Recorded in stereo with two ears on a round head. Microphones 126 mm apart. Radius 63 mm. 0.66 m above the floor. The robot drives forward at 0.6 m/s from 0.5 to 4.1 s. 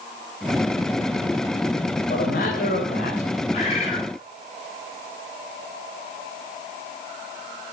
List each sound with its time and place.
2.1 s a man speaking: 75° left (ahead or behind), 4 m; by 3.3 s 70° left (ahead or behind), 4 m
3.5 s a bird: 50° left (ahead or behind), 8.5 m